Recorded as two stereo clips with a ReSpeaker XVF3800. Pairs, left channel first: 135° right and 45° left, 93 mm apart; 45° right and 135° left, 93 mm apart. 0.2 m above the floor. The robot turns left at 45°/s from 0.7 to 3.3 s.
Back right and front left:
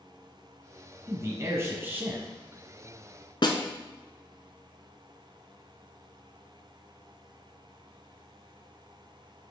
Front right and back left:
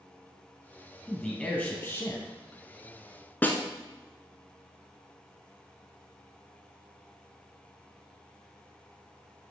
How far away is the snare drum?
About 1.0 m.